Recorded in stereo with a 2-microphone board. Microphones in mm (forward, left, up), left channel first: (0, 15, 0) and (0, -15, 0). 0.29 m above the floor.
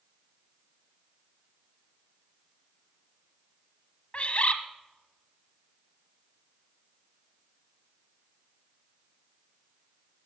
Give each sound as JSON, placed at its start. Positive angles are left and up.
{"t": 4.1, "sound": "a bird", "side_deg": 45, "distance_m": 0.9}